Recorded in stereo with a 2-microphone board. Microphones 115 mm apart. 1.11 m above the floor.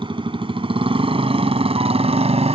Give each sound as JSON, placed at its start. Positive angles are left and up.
{"t": 0.0, "sound": "a motorcycle", "side_deg": -50}